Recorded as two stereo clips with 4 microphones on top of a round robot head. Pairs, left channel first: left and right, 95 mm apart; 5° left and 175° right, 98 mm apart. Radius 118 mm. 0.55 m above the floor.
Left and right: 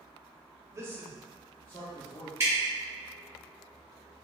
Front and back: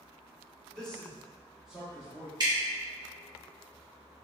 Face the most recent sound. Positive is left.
turn(degrees=-145)